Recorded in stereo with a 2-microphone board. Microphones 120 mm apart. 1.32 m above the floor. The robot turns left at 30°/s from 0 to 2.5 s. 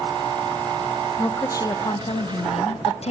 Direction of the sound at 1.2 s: 165° left.